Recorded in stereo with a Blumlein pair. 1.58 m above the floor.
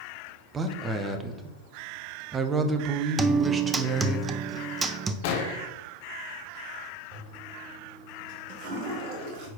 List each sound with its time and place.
0.5 s a man speaking: 15° right, 1.0 m
3.2 s a guitar: 15° right, 0.6 m
5.2 s an explosion: 50° left, 0.9 m
7.1 s a toilet flushing: 45° right, 2 m